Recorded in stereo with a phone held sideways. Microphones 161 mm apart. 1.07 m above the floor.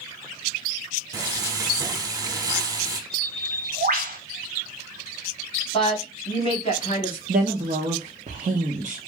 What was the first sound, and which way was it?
Frying, 20° right (ahead or behind).